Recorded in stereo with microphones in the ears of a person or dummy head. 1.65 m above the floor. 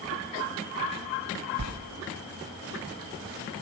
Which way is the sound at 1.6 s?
80° right.